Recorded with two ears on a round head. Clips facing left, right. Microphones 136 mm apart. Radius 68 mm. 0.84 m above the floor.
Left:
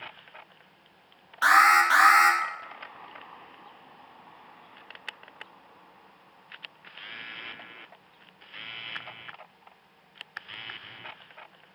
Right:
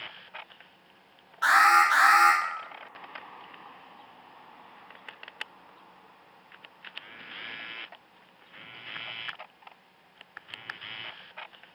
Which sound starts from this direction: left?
An alarm, at 1.4 s.